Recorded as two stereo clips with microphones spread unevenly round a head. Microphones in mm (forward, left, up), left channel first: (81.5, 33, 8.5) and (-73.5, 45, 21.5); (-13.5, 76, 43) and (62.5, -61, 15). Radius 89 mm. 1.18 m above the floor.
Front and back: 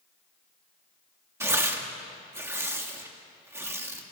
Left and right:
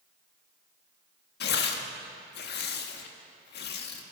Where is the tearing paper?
100° left, 2.5 m.